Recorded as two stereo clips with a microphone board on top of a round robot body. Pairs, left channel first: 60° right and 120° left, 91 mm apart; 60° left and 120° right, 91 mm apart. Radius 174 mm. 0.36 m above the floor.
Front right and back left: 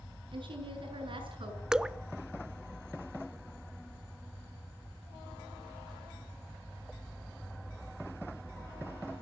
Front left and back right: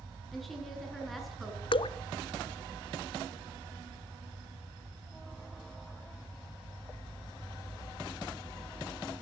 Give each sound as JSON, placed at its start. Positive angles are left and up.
{"t": 0.3, "sound": "a woman speaking", "azimuth_deg": 150, "distance_m": 7.0}
{"t": 1.7, "sound": "dripping", "azimuth_deg": 40, "distance_m": 0.7}